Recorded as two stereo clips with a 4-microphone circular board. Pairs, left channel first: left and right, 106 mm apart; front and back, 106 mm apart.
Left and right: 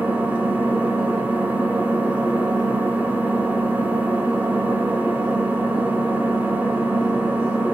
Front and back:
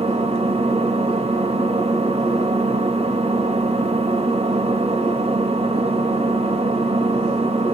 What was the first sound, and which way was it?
An engine running, 165° right.